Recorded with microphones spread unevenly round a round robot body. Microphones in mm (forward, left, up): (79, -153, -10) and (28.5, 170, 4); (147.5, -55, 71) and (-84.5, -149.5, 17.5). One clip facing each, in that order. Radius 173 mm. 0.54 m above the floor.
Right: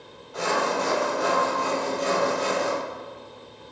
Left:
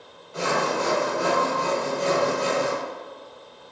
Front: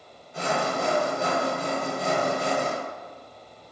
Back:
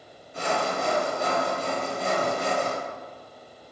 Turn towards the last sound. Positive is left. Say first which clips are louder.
# left 1 dB, front 1 dB
turn(degrees=40)